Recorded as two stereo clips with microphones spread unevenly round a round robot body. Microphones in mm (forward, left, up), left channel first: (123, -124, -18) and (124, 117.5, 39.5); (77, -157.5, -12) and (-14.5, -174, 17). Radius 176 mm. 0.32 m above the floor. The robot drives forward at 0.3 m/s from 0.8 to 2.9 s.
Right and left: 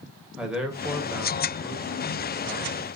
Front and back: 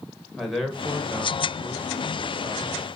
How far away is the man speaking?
About 1.0 m.